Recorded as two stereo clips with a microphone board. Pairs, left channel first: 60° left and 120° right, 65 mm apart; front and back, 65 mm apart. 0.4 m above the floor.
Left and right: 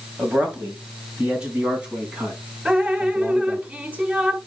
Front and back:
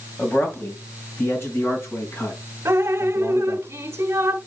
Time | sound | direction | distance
0.2 | a man speaking | 60° right | 3 m
2.6 | dripping | straight behind | 1.3 m